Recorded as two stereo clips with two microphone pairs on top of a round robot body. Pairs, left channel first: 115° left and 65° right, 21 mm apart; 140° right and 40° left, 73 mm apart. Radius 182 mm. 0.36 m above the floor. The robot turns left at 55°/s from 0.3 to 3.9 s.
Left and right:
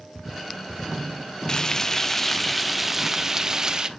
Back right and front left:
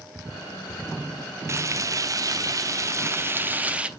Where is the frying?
85° left, 1.0 m; by 3.9 s 50° right, 1.0 m.